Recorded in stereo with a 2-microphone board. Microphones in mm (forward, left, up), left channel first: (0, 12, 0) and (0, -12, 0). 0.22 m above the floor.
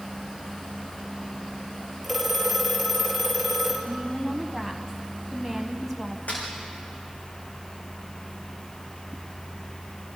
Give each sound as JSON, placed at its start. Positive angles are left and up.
{"t": 2.0, "sound": "a phone ringing", "side_deg": 0, "distance_m": 4.0}
{"t": 3.9, "sound": "a woman speaking", "side_deg": -5, "distance_m": 1.4}
{"t": 6.3, "sound": "a snare drum", "side_deg": 85, "distance_m": 8.0}